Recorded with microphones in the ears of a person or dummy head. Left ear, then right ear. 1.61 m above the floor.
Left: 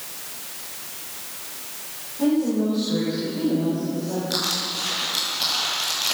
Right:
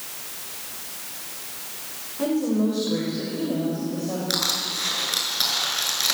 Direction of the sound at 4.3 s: 80° right.